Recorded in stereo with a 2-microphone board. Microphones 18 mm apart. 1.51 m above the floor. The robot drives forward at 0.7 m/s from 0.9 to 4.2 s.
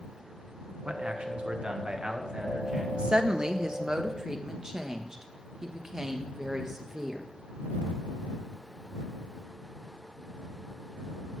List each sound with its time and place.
0.8 s a man speaking: 70° right (ahead or behind), 1.5 m; by 2.8 s 40° right (ahead or behind), 2.5 m
2.9 s a woman speaking: 60° right (ahead or behind), 0.9 m; by 7.3 s 30° right (ahead or behind), 1.6 m